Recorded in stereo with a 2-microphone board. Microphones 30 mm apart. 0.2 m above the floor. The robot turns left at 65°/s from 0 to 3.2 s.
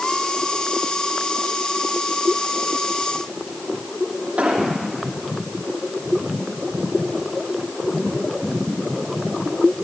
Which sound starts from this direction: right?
An explosion, at 4.4 s.